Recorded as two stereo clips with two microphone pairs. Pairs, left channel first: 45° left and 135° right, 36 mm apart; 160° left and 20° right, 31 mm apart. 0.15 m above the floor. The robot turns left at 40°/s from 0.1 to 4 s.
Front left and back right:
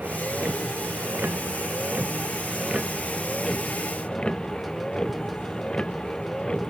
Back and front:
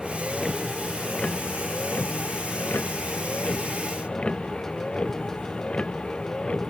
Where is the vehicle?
95° right; by 6.7 s 105° left.